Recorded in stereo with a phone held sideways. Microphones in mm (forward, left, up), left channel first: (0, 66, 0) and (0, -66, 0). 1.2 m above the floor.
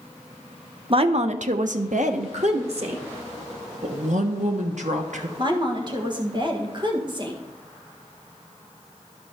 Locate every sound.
0.9 s a woman speaking: 40° right (ahead or behind), 0.8 m; by 3.0 s 50° right (ahead or behind), 1.4 m
3.8 s a woman speaking: 65° right (ahead or behind), 1.1 m
5.4 s a woman speaking: 35° right (ahead or behind), 1.6 m